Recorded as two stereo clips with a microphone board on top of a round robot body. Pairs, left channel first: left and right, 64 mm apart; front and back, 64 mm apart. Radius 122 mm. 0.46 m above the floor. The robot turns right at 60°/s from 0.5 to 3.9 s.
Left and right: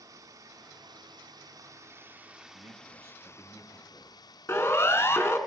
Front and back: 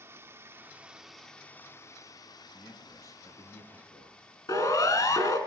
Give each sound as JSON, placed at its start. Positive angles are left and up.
{"t": 0.0, "sound": "running water", "azimuth_deg": -130, "distance_m": 1.9}
{"t": 2.5, "sound": "a man speaking", "azimuth_deg": -70, "distance_m": 8.0}
{"t": 4.5, "sound": "a siren", "azimuth_deg": 35, "distance_m": 5.0}